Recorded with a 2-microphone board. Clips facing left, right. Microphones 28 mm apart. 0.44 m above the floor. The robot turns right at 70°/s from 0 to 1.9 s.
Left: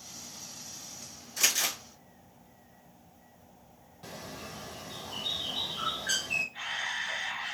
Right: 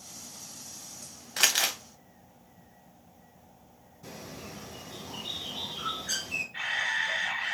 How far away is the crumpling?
About 0.5 m.